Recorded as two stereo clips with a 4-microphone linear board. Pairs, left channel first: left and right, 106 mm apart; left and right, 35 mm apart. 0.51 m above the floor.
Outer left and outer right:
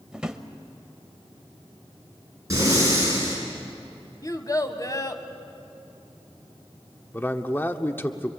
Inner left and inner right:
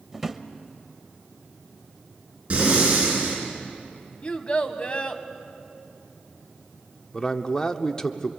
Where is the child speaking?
35° left (ahead or behind), 1.8 m.